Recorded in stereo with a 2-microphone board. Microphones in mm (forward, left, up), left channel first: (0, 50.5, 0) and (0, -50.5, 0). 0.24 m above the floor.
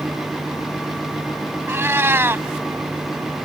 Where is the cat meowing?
25° right (ahead or behind).